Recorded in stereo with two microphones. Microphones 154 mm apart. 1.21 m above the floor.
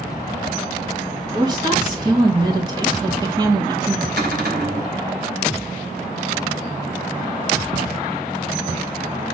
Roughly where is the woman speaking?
Right.